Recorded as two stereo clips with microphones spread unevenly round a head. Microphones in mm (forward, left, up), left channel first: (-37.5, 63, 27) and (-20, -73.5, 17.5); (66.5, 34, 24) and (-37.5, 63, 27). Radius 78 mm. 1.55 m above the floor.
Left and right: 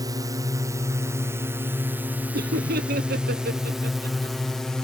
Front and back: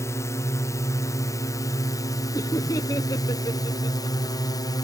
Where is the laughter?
80° right.